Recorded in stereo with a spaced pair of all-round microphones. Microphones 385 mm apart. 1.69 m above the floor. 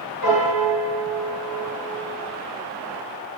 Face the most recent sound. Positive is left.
turn(degrees=-60)  # may be behind; listen again after turning